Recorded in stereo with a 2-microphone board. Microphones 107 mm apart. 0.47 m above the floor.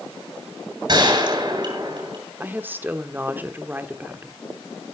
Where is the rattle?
I don't hear a rattle.